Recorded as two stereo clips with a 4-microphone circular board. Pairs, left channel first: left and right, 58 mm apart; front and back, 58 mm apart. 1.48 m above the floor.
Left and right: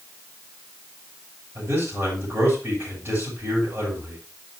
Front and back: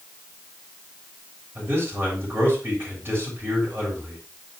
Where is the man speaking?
125° right, 5.5 m.